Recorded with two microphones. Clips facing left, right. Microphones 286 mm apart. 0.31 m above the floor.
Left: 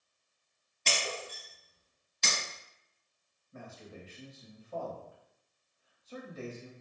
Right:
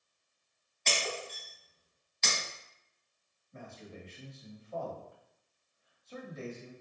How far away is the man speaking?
About 1.1 m.